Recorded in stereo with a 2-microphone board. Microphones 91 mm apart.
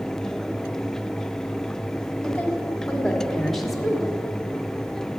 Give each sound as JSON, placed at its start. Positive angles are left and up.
{"t": 2.2, "sound": "a woman speaking", "side_deg": 10, "distance_m": 2.5}